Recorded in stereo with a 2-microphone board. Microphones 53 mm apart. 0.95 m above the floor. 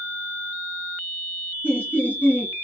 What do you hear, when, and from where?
1.6 s laughter: 35° left (ahead or behind), 1.2 m